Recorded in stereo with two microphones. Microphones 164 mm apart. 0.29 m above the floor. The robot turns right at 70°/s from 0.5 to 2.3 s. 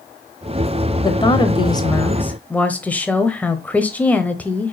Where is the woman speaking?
25° left (ahead or behind), 0.9 m; by 4.7 s 10° left (ahead or behind), 0.9 m.